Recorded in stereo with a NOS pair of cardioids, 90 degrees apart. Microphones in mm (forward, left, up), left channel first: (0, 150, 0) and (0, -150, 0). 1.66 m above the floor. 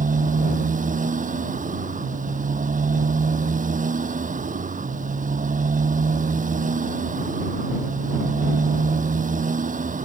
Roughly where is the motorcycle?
Ahead right.